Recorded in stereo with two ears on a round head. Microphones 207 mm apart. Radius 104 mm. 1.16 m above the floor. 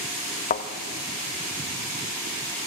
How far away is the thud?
About 1.2 m.